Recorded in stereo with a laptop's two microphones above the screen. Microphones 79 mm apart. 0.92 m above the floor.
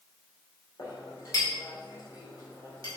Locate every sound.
0.8 s a clink: 45° left (ahead or behind), 2 m